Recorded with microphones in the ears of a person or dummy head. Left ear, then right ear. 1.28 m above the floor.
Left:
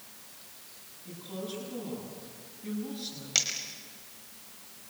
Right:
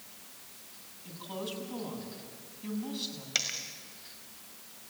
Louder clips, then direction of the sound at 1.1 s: Right 1 dB; 55° right (ahead or behind).